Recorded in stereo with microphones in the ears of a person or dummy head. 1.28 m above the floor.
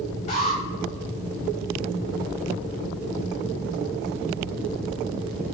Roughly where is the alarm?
Left.